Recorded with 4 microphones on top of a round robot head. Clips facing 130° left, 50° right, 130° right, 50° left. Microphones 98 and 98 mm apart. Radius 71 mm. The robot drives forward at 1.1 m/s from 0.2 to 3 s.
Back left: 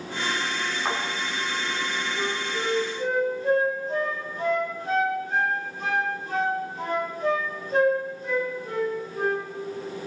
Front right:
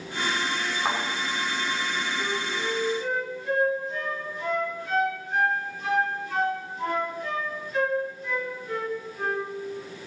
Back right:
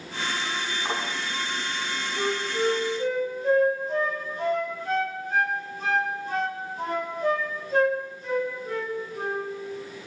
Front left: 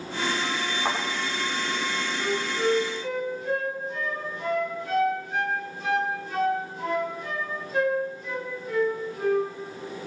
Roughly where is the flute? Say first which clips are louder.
Back left 1 dB, back right 3 dB; behind.